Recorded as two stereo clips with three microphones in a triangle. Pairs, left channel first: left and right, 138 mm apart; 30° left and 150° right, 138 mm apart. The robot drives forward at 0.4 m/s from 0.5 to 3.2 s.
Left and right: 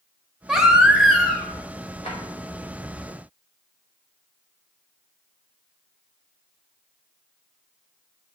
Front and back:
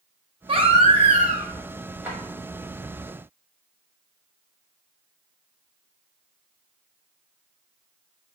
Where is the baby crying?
175° right, 0.6 m; by 1.5 s straight behind, 0.9 m.